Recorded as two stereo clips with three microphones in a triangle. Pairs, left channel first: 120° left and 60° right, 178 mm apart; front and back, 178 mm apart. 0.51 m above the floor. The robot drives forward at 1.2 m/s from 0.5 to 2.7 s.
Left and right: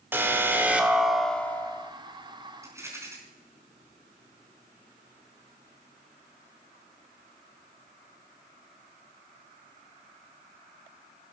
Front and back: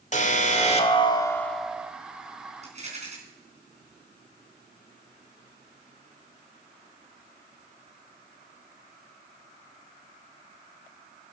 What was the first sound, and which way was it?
An alarm, 15° left.